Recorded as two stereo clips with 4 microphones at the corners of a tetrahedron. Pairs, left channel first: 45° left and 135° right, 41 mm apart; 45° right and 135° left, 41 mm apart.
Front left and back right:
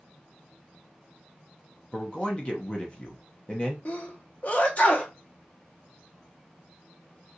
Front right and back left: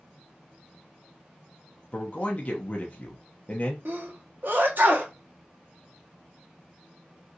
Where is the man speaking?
10° right, 0.6 m.